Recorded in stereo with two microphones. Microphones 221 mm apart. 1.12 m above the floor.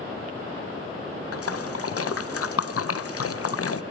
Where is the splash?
75° left (ahead or behind), 0.5 m.